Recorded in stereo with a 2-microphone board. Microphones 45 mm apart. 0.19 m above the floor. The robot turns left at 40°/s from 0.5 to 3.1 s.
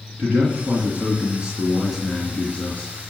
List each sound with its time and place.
0.2 s a man speaking: 120° right, 2.5 m; by 2.9 s 140° left, 2.5 m